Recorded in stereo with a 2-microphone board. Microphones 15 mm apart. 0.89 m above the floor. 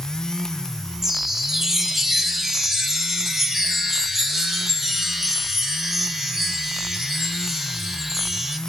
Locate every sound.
1.0 s a chime: 25° right (ahead or behind), 0.5 m